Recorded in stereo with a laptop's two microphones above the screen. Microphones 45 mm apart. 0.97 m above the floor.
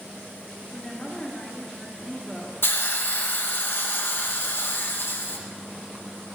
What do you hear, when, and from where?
0.7 s a woman speaking: 10° left (ahead or behind), 2 m
2.6 s a hiss: 55° left (ahead or behind), 0.9 m